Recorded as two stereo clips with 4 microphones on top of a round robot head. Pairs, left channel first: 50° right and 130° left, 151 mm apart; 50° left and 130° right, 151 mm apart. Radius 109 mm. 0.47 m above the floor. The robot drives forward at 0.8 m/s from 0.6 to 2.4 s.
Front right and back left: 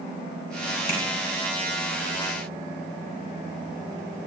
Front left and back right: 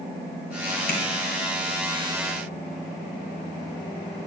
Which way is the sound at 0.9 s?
20° left.